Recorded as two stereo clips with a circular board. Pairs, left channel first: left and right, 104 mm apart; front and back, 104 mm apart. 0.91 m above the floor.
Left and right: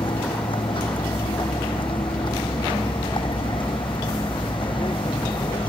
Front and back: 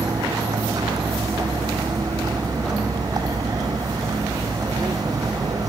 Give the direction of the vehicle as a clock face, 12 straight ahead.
8 o'clock.